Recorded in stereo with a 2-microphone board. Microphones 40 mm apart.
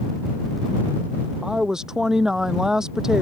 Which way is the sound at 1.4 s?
15° right (ahead or behind).